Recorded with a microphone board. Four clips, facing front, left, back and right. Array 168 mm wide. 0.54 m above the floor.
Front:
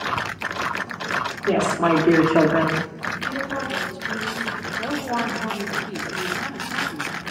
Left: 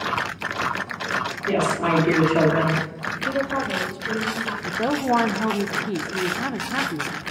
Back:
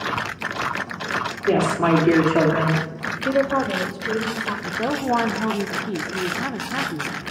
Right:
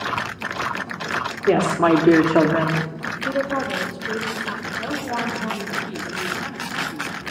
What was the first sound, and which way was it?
A woman speaking, 105° right.